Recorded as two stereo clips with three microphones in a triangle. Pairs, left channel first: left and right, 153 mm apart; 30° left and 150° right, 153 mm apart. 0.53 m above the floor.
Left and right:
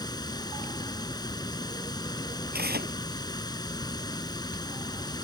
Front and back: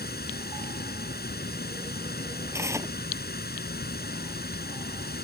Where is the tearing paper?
75° right.